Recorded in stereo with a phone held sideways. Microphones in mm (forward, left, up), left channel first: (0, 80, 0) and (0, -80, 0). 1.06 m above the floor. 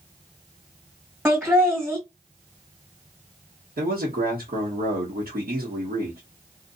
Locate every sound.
1.2 s laughter: 10° right (ahead or behind), 1.9 m
3.8 s a man speaking: 70° right (ahead or behind), 1.4 m